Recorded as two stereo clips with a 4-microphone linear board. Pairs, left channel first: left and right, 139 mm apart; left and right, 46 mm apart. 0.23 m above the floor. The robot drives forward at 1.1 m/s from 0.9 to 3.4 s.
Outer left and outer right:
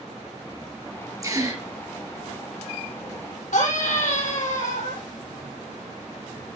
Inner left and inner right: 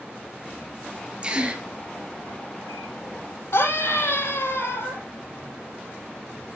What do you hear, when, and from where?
1.2 s a gasp: 25° right (ahead or behind), 3 m; by 1.6 s 30° right (ahead or behind), 2.5 m
3.5 s a scream: 80° left, 6.5 m